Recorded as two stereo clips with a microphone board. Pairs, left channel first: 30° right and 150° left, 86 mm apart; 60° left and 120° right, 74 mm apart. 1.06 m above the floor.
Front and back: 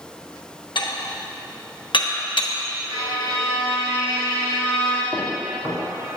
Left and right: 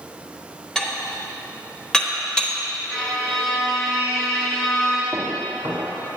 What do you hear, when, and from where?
0.8 s dishes clattering: 20° right, 0.9 m
2.9 s a violin: 140° left, 2 m
5.1 s footsteps: 170° right, 2 m